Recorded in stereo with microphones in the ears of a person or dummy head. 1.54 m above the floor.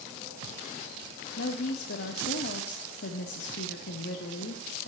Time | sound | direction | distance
1.4 | a woman speaking | 65° left (ahead or behind) | 0.8 m